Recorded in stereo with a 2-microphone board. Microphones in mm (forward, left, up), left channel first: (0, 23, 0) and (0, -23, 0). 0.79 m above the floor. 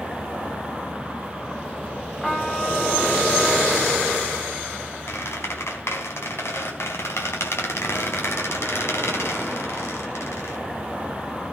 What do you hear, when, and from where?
2.2 s a trumpet: 15° left (ahead or behind), 3.5 m
5.1 s a squeak: 70° left (ahead or behind), 4 m